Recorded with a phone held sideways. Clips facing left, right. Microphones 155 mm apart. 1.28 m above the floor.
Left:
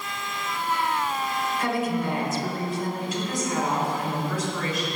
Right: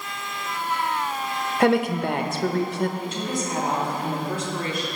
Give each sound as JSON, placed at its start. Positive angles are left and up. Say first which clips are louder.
{"t": 1.6, "sound": "a woman speaking", "louder": "right 8 dB", "side_deg": -80, "distance_m": 0.8}
{"t": 3.0, "sound": "a woman speaking", "louder": "even", "side_deg": -30, "distance_m": 2.5}